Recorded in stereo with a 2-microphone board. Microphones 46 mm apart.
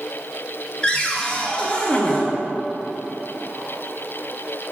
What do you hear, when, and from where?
0.8 s a cupboard door: 25° left (ahead or behind), 0.6 m